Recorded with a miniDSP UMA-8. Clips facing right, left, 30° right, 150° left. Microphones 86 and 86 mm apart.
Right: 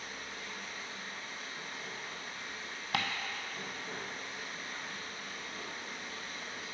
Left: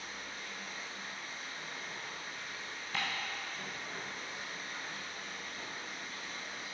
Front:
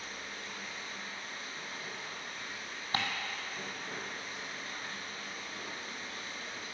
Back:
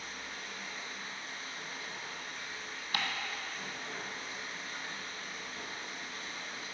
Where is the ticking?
90° right, 0.8 m.